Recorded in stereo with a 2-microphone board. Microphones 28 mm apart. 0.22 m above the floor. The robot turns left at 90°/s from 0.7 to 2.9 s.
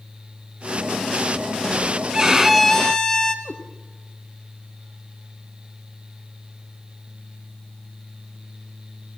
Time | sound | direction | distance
2.1 | a violin | 145° right | 1.4 m
3.5 | a cat meowing | 20° left (ahead or behind) | 3.5 m